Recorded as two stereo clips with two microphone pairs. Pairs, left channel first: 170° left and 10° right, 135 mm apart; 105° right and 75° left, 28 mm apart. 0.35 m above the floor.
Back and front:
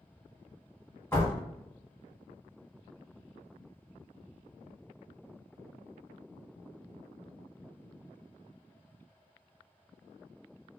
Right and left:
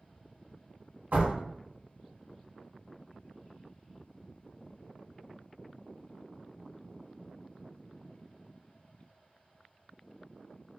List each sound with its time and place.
1.1 s a door slam: 100° left, 1.7 m